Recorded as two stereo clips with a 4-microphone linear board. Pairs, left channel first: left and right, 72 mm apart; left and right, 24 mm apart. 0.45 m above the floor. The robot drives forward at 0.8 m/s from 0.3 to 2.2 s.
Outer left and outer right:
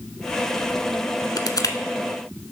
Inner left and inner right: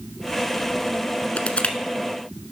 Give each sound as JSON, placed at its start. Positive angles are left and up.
{"t": 1.4, "sound": "crushing", "side_deg": 70, "distance_m": 0.9}